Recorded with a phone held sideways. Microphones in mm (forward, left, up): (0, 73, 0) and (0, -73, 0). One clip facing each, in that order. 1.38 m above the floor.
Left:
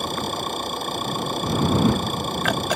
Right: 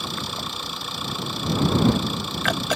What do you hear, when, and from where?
0.0 s an engine running: 50° left (ahead or behind)